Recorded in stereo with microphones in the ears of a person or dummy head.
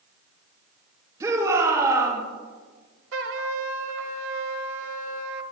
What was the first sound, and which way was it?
A shout, 15° right (ahead or behind).